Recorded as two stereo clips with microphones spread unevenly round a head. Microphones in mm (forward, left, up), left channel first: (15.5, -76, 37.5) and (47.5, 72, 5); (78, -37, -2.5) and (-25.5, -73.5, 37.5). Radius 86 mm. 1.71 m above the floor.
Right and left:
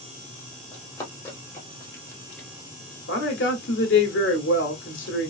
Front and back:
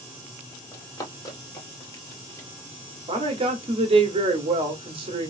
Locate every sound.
0.7 s running footsteps: 50° right, 2.5 m; by 2.5 s 55° right, 1.9 m
3.1 s a woman speaking: 120° right, 1.7 m